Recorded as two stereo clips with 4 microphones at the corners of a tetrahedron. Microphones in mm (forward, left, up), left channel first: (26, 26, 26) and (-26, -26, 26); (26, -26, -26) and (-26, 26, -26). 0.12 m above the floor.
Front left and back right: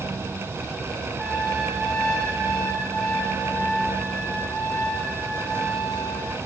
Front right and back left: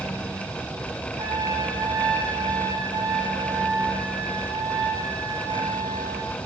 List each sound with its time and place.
1.2 s a trumpet: 130° left, 5.5 m